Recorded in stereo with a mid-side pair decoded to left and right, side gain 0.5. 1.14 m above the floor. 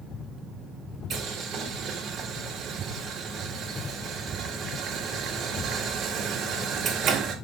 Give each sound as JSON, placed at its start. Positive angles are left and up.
{"t": 1.1, "sound": "boiling", "azimuth_deg": -60, "distance_m": 4.0}